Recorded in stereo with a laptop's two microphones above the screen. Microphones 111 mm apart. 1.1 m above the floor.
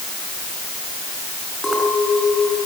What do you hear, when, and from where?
1.6 s a clink: centre (ahead or behind), 6.5 m